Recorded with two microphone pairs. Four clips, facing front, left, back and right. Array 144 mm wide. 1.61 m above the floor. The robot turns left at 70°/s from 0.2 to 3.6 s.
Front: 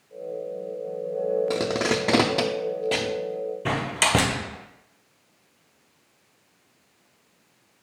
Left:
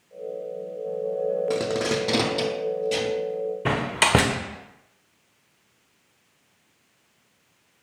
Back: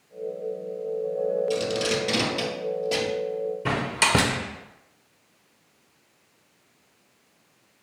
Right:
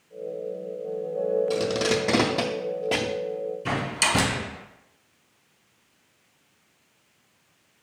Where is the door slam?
85° left, 0.7 m.